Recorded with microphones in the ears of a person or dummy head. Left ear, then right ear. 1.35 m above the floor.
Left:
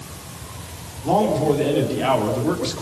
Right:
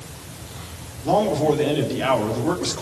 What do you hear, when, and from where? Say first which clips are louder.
1.0 s a man speaking: even; 15° right (ahead or behind), 4 m